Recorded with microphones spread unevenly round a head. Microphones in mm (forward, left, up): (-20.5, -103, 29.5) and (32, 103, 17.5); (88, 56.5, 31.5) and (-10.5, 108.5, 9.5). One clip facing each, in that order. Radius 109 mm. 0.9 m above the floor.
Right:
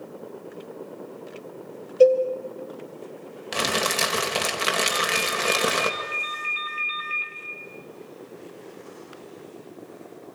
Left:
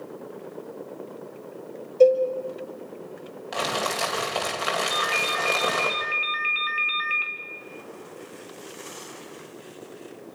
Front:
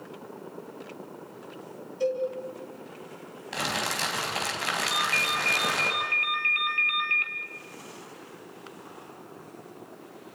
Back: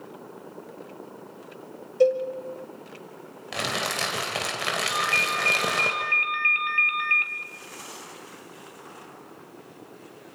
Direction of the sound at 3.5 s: 160° right.